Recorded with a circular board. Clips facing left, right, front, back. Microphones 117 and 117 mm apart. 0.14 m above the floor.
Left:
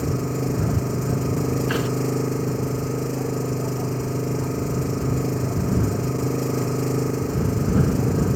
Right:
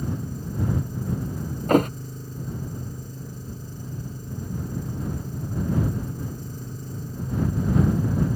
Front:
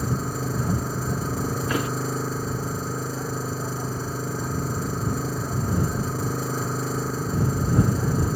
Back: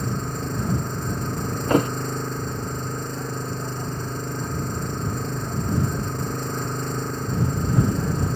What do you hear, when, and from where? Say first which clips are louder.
0.0 s an engine running: left 7 dB, front 1 dB; 85° left
1.7 s a thud: right 5 dB, back 10 dB; 135° right